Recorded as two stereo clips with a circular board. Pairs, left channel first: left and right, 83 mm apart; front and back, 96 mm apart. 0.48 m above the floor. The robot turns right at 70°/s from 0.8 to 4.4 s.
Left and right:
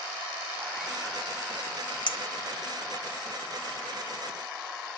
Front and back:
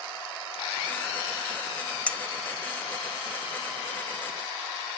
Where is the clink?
75° left, 1.1 m; by 3.0 s 145° left, 1.1 m.